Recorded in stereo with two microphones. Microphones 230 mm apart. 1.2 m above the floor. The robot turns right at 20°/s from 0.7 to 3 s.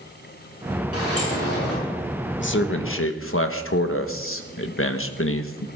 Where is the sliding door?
75° left (ahead or behind), 7 m; by 1.8 s 85° left, 7 m.